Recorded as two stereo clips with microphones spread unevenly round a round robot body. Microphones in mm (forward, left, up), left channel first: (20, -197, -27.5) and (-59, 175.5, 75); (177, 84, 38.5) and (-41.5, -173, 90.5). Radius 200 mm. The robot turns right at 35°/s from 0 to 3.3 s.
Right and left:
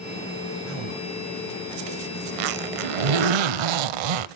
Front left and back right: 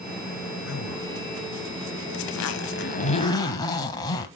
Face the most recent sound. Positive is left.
turn(degrees=130)